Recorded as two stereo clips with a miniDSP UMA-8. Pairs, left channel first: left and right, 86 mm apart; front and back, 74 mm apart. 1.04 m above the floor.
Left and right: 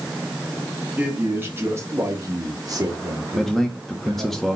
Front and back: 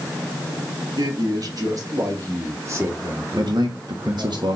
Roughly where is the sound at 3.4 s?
Behind.